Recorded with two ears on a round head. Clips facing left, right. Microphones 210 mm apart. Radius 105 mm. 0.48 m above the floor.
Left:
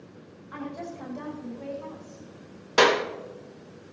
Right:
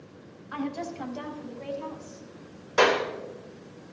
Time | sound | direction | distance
0.5 | a woman speaking | 65° right (ahead or behind) | 4.5 m
2.8 | a clap | 50° left (ahead or behind) | 1.7 m